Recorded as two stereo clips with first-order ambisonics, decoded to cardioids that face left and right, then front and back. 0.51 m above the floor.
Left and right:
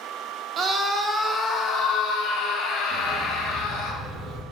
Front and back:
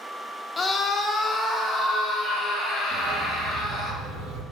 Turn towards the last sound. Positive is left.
turn(degrees=-155)